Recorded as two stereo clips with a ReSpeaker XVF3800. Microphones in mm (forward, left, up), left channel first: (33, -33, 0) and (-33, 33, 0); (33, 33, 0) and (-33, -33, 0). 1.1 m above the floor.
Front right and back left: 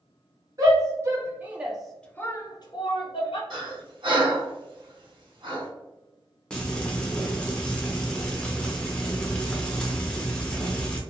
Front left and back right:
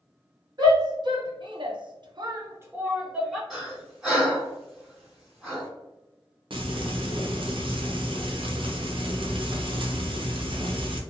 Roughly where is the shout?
Behind.